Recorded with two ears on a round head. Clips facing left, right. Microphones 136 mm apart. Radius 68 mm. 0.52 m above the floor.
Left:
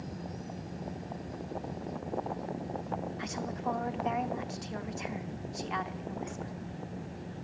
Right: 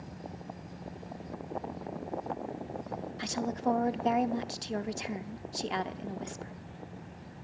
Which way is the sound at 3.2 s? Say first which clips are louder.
Right 3 dB; 40° right (ahead or behind).